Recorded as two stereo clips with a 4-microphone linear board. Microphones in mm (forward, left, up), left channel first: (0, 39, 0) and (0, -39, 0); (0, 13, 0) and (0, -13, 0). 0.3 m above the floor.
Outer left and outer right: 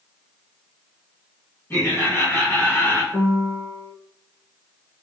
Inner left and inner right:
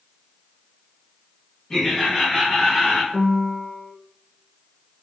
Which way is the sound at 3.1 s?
80° left.